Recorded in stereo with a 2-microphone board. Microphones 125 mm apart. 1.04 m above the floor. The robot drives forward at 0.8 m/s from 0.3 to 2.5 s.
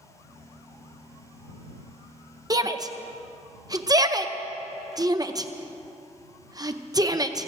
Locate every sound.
2.5 s a shout: 30° right (ahead or behind), 0.7 m